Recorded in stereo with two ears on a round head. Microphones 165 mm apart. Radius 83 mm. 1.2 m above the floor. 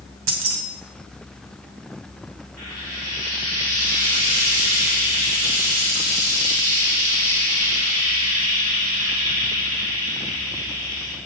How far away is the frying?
About 2.5 m.